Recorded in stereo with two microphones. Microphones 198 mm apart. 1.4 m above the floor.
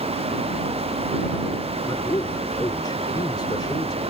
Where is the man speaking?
20° left (ahead or behind).